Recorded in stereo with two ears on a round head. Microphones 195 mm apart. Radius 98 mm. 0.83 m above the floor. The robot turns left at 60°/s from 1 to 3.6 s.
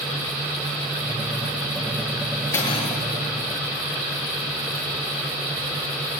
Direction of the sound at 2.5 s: 10° left (ahead or behind).